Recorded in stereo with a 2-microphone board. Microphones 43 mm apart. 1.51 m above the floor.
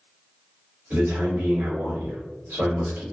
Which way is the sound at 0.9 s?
85° right.